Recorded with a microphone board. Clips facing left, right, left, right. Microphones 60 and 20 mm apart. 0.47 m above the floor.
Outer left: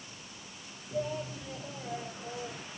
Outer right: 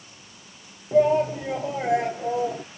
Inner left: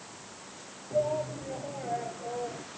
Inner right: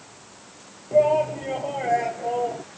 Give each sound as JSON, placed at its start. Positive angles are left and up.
{"t": 0.9, "sound": "a shout", "side_deg": -75}